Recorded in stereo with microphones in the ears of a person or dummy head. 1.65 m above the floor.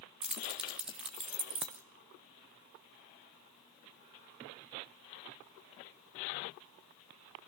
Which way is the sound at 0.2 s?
5° right (ahead or behind).